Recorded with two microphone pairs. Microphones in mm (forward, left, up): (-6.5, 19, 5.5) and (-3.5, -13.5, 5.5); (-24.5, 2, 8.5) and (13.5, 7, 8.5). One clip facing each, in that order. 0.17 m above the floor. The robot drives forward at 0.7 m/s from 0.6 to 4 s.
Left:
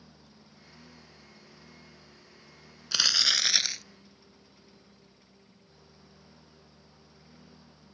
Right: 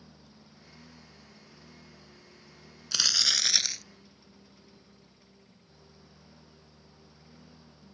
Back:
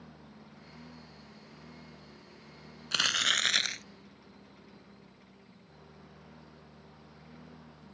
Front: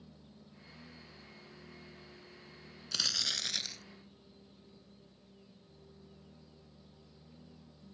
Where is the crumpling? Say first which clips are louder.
Left 2 dB, back 9 dB; 165° left; by 3.8 s 170° left.